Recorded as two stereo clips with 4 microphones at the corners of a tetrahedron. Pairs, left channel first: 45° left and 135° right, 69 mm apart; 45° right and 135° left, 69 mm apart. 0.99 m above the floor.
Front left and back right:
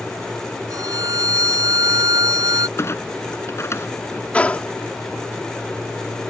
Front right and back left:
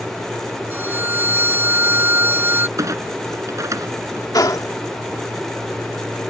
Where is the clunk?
95° left.